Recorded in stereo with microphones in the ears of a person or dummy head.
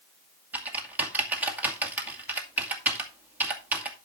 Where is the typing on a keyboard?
10° right (ahead or behind), 2.5 m.